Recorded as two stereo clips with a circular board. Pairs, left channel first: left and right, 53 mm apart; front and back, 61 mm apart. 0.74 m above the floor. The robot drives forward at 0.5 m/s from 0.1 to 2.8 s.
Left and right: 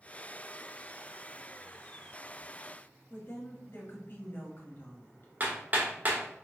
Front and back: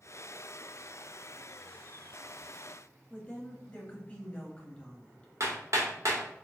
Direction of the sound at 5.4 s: 145° right.